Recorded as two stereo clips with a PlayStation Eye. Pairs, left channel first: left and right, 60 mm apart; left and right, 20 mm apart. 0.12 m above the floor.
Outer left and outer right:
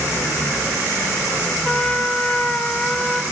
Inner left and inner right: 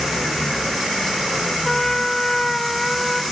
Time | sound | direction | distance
1.6 | a trumpet | 10° left (ahead or behind) | 0.5 m